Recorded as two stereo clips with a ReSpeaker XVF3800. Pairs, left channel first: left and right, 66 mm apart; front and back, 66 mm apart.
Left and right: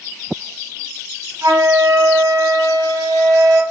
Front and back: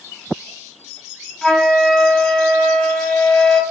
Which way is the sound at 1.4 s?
80° right.